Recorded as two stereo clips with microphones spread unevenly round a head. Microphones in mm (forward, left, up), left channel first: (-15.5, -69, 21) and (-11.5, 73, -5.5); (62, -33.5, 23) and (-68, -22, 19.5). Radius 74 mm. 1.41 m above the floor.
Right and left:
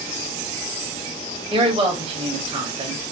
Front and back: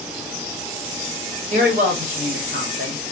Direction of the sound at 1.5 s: 140° left.